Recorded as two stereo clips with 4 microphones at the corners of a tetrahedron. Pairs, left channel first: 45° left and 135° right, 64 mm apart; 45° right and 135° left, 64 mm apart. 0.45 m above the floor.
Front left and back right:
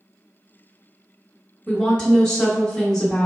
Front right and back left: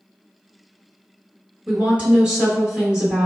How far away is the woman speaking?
About 1.0 m.